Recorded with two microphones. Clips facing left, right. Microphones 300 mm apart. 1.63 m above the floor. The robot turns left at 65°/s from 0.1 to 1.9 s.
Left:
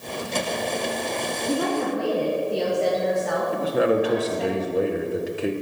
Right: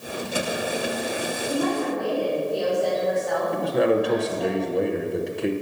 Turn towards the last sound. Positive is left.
turn(degrees=5)  # may be behind; listen again after turning